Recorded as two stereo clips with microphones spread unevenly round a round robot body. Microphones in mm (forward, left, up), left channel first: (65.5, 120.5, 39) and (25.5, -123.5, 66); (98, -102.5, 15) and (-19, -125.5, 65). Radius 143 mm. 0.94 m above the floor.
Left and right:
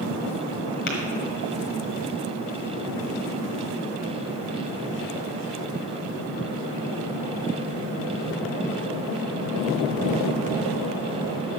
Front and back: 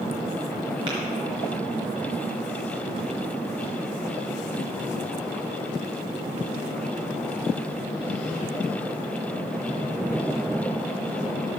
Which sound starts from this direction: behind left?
Tapping, at 0.9 s.